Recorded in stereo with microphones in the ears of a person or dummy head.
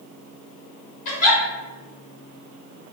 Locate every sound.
1.1 s a giggle: 45° left (ahead or behind), 1.8 m